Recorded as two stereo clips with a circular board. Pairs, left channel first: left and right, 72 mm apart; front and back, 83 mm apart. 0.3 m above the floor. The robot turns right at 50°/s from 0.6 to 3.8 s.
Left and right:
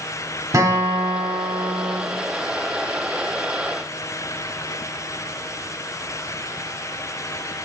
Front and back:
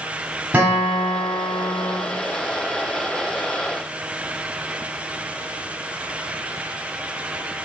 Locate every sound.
0.5 s a guitar: 115° right, 1.2 m; by 2.0 s 40° right, 1.2 m